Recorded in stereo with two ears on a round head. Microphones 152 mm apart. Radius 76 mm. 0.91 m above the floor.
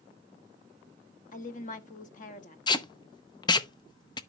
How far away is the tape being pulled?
About 0.6 m.